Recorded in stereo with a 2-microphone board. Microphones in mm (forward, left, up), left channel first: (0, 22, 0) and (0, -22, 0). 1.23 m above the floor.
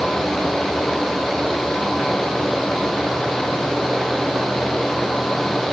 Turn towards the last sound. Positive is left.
No sound to turn to.